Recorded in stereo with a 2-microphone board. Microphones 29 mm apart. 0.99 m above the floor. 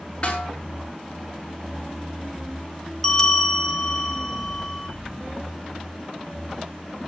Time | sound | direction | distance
0.2 | a snare drum | 35° left (ahead or behind) | 7 m
3.0 | a bell | 20° left (ahead or behind) | 2.0 m